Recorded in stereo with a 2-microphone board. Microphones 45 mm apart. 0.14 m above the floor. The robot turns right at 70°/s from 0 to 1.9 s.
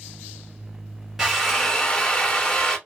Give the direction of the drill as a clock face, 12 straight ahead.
1 o'clock.